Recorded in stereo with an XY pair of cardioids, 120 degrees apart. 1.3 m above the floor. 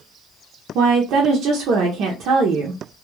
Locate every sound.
0.8 s a woman speaking: 70° right, 0.6 m